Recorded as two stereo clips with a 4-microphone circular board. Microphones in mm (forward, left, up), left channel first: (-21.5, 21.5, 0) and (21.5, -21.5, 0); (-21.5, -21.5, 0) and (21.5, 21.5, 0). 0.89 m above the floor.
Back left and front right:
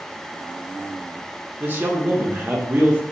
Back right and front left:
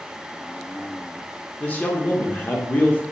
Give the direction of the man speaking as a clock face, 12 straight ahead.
3 o'clock.